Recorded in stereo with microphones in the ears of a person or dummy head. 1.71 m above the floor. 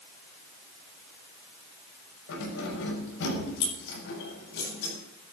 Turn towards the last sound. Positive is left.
turn(degrees=60)  # may be behind; listen again after turning